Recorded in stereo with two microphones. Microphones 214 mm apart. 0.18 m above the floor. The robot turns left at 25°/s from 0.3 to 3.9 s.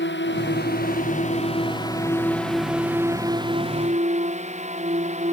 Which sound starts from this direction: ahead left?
A drone, at 0.0 s.